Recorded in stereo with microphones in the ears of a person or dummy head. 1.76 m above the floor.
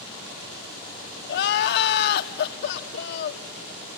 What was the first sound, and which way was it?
Crying, 50° left (ahead or behind).